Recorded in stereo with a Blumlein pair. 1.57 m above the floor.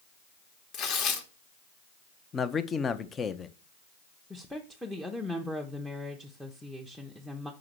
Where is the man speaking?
20° left, 0.7 m.